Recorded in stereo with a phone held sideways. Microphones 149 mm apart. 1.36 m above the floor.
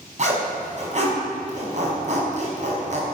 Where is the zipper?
50° right (ahead or behind), 5 m.